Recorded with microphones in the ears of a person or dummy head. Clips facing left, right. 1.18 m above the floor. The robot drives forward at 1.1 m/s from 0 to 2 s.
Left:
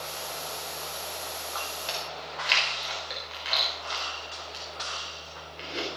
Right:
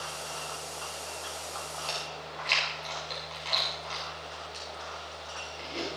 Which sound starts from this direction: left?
Chewing, at 1.9 s.